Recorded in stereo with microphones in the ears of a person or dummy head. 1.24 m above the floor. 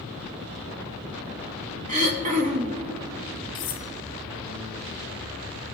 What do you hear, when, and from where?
1.9 s throat clearing: 35° right (ahead or behind), 0.9 m
3.5 s cutlery clinking: 25° left (ahead or behind), 0.7 m